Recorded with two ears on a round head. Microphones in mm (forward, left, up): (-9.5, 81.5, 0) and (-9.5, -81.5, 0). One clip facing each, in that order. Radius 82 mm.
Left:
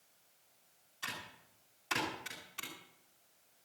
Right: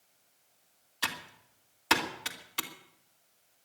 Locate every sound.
1.0 s typing on a keyboard: 75° right (ahead or behind), 2.5 m